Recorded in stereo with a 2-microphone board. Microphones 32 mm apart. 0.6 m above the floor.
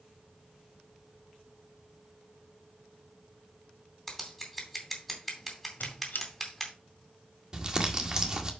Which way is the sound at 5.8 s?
80° left.